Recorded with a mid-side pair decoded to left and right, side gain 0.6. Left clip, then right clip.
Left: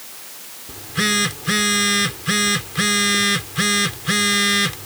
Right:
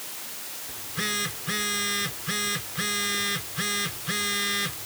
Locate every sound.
0.7 s a phone buzzing: 45° left